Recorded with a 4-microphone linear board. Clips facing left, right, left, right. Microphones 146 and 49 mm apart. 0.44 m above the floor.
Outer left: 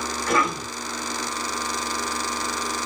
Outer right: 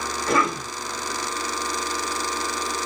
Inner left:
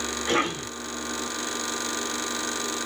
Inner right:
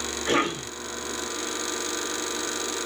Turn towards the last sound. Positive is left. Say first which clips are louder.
# outer right 1 dB, inner right 1 dB
turn(degrees=-30)  # may be behind; listen again after turning